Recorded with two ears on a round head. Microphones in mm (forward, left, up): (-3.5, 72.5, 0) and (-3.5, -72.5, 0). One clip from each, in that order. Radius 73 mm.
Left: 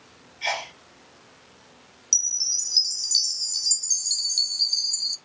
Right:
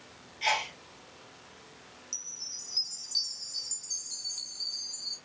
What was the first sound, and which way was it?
A sneeze, 10° right (ahead or behind).